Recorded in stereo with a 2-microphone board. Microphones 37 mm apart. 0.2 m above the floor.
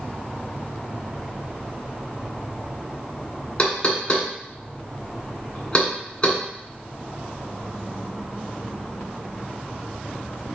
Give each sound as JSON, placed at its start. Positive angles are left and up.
{"t": 3.6, "sound": "knocking", "side_deg": 25, "distance_m": 1.1}